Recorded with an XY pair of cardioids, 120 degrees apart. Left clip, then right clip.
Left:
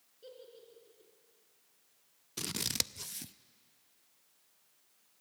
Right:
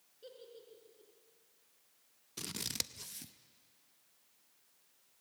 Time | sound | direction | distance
0.2 | a giggle | 5° right | 4 m
2.4 | scissors | 25° left | 0.5 m